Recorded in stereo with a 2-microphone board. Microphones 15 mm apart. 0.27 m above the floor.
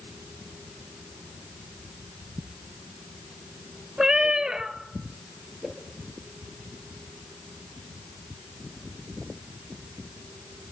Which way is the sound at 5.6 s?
50° right (ahead or behind).